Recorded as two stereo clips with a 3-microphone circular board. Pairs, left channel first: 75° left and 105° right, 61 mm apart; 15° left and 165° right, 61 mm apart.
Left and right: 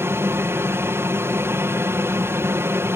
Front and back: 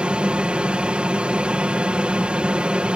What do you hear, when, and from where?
0.0 s an aircraft: 100° right